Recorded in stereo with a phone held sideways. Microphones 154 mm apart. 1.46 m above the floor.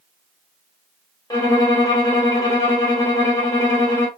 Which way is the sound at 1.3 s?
25° left (ahead or behind).